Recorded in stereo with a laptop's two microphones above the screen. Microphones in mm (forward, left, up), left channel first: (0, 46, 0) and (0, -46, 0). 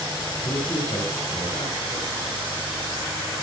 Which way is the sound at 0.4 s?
60° left (ahead or behind).